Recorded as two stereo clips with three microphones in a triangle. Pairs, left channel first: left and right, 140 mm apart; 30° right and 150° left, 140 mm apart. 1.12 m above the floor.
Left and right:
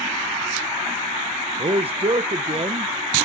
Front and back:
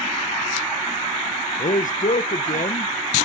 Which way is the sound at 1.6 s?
45° right.